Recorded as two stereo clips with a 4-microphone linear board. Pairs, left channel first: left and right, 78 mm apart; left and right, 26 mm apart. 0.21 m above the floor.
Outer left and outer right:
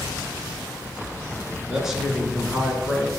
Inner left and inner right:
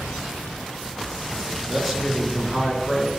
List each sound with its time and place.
1.7 s a man speaking: 5° right (ahead or behind), 2.5 m